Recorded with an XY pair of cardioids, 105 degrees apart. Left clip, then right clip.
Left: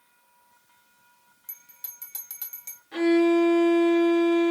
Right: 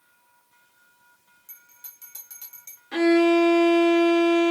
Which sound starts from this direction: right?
A violin, at 2.9 s.